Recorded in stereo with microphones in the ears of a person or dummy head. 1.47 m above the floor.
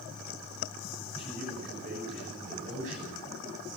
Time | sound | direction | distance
1.2 | a man speaking | 40° right (ahead or behind) | 9.5 m